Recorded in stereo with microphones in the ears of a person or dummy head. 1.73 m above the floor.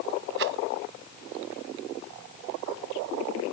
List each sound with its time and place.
0.4 s a rattle: 55° right (ahead or behind)